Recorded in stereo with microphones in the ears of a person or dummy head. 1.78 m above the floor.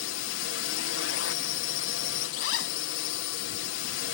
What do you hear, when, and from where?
0.0 s a drone: 70° left (ahead or behind)
2.3 s a zipper: 80° left